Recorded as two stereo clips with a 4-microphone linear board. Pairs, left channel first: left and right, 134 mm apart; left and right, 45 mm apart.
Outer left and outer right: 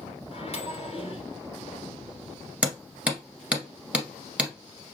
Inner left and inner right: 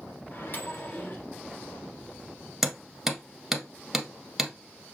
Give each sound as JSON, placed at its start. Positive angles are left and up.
{"t": 0.3, "sound": "a microwave", "side_deg": 50, "distance_m": 1.2}
{"t": 2.6, "sound": "hammering", "side_deg": -10, "distance_m": 1.3}